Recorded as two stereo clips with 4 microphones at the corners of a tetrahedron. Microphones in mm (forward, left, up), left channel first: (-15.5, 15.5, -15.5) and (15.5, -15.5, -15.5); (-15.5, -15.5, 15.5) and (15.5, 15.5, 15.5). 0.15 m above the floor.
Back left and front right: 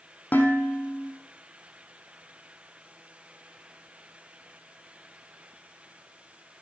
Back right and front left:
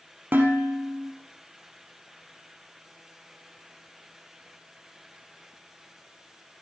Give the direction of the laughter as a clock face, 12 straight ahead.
I don't hear laughter.